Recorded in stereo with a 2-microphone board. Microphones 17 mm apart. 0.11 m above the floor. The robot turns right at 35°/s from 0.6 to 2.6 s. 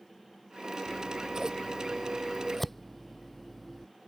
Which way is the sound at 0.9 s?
45° right (ahead or behind).